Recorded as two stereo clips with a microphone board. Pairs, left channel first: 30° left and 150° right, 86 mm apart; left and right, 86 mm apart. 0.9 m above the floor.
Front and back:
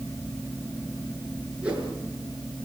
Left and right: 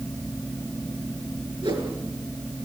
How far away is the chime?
I don't hear a chime.